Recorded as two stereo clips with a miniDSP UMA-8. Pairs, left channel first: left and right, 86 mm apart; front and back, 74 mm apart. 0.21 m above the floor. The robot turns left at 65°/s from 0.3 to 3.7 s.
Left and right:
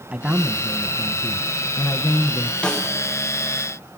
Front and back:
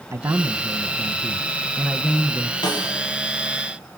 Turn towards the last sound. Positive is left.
turn(degrees=-55)